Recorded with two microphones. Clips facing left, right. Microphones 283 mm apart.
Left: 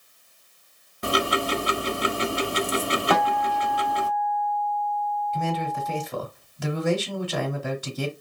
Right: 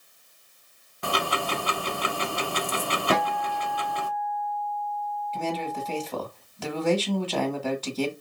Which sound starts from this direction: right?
A guitar, at 3.1 s.